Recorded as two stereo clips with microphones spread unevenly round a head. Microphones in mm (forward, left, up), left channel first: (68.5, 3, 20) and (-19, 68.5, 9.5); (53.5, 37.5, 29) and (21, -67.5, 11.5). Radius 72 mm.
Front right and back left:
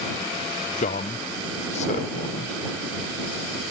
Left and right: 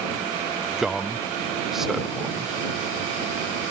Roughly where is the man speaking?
Ahead right.